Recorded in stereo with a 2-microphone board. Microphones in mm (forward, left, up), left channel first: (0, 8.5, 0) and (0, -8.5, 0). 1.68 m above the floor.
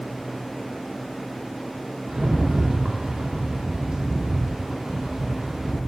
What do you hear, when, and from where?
2.1 s a rattle: 55° right (ahead or behind), 0.9 m